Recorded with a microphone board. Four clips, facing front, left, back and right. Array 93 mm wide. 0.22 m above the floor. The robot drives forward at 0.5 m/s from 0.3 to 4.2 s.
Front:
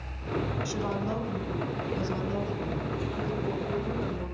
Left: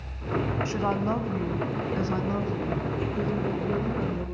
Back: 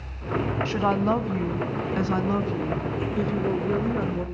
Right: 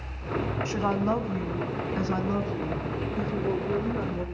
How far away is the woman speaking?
About 1.2 m.